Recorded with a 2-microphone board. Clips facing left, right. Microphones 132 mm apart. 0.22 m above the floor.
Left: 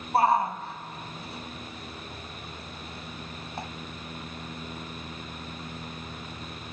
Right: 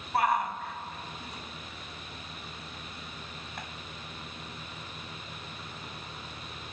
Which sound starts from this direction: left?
A shout, at 0.1 s.